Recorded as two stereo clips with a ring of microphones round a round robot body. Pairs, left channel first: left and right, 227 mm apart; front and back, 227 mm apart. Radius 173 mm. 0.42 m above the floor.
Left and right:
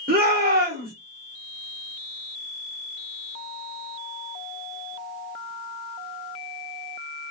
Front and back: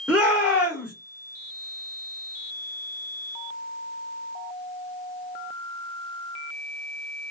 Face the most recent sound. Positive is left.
turn(degrees=-100)